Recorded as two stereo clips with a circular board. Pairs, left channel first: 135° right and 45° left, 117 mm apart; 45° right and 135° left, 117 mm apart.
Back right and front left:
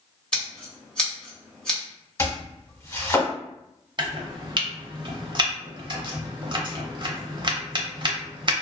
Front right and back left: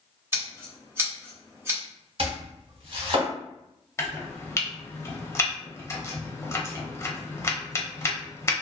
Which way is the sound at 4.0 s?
15° left.